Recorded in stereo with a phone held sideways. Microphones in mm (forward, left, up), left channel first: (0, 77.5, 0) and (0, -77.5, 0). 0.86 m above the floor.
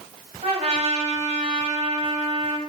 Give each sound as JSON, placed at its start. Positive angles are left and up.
{"t": 0.4, "sound": "a trumpet", "side_deg": -45, "distance_m": 1.1}